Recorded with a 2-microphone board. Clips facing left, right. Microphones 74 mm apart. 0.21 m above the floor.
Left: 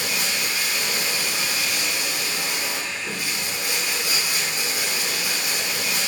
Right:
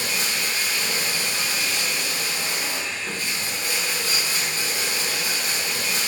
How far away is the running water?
About 1.0 m.